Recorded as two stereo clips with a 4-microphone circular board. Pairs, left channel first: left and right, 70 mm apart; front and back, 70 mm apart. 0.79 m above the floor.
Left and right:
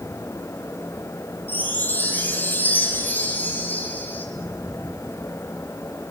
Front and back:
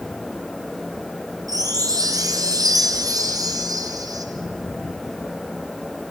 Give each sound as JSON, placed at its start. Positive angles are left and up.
{"t": 1.5, "sound": "a chime", "azimuth_deg": 155, "distance_m": 3.0}